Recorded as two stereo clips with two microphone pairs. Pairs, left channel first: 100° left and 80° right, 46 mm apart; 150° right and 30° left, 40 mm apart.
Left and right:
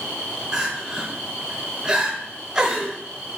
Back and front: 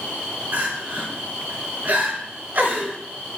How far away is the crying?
About 3.5 m.